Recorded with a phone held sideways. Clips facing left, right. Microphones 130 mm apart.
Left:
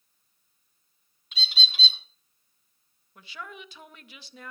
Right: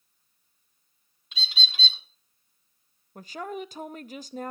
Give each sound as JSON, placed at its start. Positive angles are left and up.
{"t": 1.3, "sound": "a bird", "side_deg": 5, "distance_m": 2.5}
{"t": 3.1, "sound": "a woman speaking", "side_deg": -45, "distance_m": 0.5}